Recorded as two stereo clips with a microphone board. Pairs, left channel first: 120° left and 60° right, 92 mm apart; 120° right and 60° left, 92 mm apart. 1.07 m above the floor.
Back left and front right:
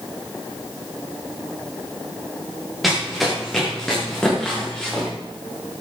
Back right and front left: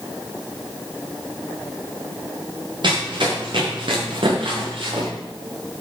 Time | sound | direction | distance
2.8 | running footsteps | 30° left | 7.5 m